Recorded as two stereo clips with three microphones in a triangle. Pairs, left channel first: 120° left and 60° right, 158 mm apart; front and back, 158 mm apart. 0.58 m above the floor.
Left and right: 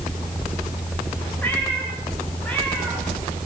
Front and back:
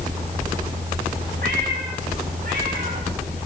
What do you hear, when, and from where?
1.4 s a cat meowing: 160° right, 9.5 m; by 3.5 s 155° right, 8.5 m